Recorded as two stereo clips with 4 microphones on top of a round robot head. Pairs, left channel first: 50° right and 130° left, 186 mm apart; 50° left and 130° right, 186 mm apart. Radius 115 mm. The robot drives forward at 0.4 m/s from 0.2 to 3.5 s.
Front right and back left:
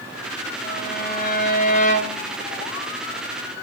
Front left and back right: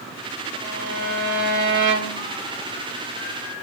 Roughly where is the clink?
I don't hear a clink.